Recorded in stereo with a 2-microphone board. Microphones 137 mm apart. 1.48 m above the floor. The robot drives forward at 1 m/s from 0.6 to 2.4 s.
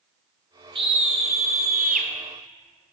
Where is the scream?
40° right (ahead or behind), 1.3 m; by 2.1 s 70° right (ahead or behind), 0.9 m.